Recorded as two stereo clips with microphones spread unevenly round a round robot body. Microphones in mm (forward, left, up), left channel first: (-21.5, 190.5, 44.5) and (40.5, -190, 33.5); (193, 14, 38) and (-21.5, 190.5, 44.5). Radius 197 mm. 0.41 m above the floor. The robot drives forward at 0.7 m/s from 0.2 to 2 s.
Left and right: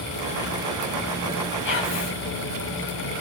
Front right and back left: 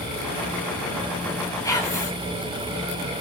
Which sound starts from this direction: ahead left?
Whispering, at 1.6 s.